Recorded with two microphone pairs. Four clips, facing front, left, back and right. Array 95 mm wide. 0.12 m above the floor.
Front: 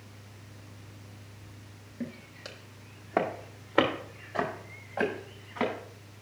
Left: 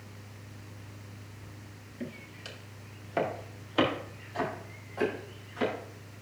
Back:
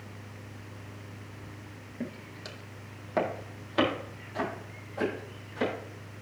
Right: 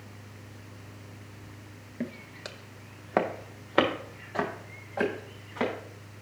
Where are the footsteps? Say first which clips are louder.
Right 5 dB, even; 100° right, 1.6 m; by 5.7 s 40° right, 4.5 m.